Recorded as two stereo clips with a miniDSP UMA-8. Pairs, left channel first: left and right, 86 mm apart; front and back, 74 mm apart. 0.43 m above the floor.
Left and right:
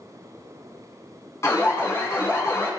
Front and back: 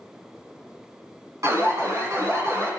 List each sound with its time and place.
1.4 s an alarm: 140° left, 5 m